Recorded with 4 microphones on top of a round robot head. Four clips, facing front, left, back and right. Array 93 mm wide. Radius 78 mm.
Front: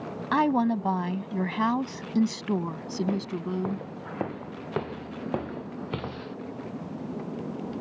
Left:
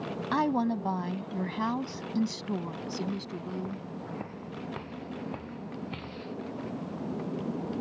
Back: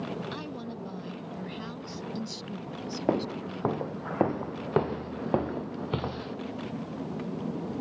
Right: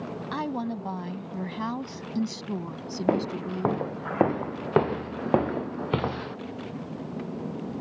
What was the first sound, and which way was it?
A woman speaking, 15° left.